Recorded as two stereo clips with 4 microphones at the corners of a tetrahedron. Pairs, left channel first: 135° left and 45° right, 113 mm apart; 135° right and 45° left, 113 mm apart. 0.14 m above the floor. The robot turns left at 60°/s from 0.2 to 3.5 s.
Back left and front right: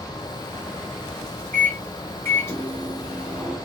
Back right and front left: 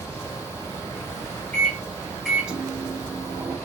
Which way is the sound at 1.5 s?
175° left.